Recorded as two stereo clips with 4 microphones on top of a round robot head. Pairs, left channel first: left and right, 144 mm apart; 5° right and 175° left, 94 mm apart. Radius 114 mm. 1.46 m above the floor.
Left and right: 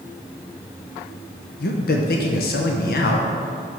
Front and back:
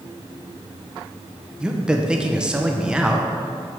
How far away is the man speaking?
About 0.7 m.